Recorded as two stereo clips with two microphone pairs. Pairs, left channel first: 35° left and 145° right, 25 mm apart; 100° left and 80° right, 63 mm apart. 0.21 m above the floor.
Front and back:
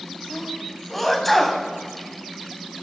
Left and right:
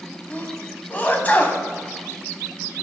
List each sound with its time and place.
0.3 s a sneeze: 105° left, 1.1 m